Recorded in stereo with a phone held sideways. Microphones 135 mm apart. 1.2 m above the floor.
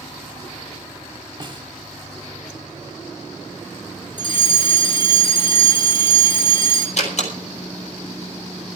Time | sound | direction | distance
1.4 | a snare drum | 35° right (ahead or behind) | 1.7 m
4.2 | a fire alarm | 40° left (ahead or behind) | 5 m
7.0 | a door slam | 60° left (ahead or behind) | 5 m